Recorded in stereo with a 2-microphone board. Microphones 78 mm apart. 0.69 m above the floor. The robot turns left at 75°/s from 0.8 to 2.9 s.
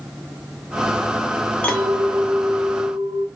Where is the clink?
25° left, 0.8 m; by 3.3 s 70° right, 0.8 m.